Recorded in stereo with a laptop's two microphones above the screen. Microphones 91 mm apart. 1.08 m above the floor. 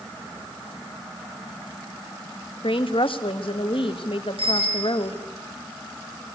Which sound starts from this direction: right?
A bicycle bell, at 4.4 s.